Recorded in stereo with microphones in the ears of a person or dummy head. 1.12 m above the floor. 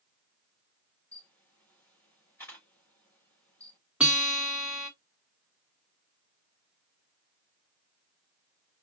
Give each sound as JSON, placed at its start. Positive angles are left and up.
{"t": 1.1, "sound": "a camera shutter", "side_deg": 10, "distance_m": 4.0}
{"t": 4.0, "sound": "a guitar", "side_deg": -5, "distance_m": 1.7}